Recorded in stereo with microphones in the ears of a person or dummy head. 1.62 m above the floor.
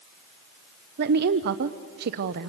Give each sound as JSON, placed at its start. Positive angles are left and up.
{"t": 1.0, "sound": "a woman speaking", "side_deg": -50, "distance_m": 0.7}